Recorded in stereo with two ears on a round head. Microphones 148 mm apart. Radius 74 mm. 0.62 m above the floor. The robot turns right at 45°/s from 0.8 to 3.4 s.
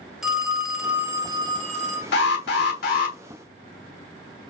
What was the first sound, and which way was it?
A phone ringing, 175° right.